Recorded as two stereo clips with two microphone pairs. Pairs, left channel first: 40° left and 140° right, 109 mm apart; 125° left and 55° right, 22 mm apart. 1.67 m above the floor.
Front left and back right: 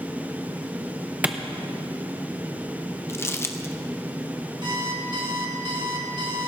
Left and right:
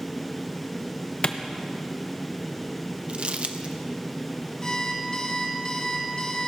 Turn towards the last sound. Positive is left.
turn(degrees=180)